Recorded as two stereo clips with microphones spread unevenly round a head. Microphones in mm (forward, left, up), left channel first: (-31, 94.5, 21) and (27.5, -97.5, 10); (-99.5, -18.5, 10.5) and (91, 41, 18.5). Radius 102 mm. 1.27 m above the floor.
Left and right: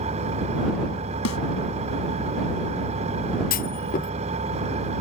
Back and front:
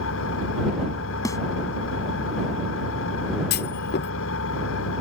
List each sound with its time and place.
0.0 s an engine running: 135° right
1.2 s a snare drum: 120° left
3.5 s a clunk: 155° left